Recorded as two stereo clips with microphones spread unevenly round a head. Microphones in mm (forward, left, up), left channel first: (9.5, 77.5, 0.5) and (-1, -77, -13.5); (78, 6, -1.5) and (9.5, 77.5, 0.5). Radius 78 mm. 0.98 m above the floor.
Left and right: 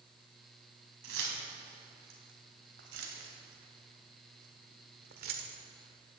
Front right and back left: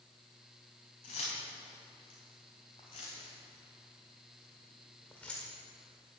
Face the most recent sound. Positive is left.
turn(degrees=-130)